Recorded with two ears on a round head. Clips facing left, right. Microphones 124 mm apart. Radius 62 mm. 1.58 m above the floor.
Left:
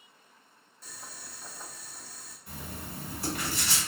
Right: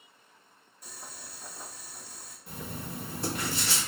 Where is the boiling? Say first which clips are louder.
Right 1 dB; 10° right (ahead or behind), 0.7 m.